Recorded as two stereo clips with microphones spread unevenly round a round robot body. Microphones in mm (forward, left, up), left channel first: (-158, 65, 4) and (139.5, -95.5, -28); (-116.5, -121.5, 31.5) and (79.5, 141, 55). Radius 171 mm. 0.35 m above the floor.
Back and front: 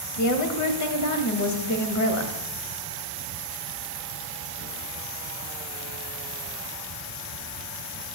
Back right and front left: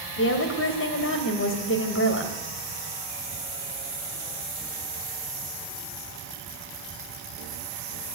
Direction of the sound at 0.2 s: 170° right.